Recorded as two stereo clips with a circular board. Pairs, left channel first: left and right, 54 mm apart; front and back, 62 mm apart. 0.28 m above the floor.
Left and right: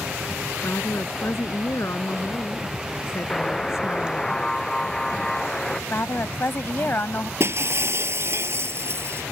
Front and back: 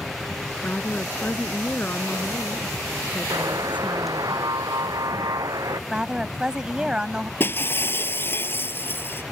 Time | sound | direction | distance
0.6 | a woman speaking | 60° left | ?
3.3 | a buzzer | 170° left | ?
5.9 | a woman speaking | 110° left | ?
7.4 | breaking glass | 55° right | ?